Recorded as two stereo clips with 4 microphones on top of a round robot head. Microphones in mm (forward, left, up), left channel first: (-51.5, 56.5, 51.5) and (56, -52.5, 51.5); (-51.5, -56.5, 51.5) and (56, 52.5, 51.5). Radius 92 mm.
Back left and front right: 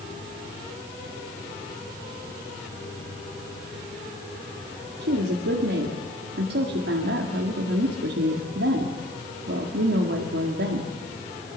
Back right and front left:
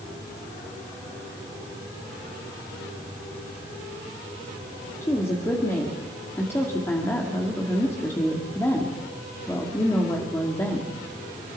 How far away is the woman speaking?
About 2 m.